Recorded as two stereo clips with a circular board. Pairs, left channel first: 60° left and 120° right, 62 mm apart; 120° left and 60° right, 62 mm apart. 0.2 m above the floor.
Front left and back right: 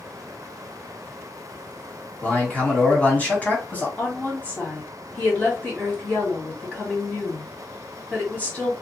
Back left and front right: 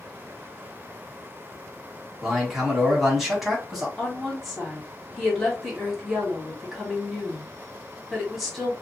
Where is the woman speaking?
30° left, 1.5 m.